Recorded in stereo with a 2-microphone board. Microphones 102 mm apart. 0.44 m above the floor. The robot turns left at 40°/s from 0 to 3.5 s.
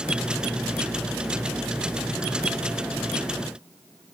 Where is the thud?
I don't hear a thud.